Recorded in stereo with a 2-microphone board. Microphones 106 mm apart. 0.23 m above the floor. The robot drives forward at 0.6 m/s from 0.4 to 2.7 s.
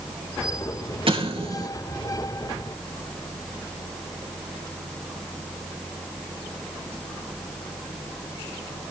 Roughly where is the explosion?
Right.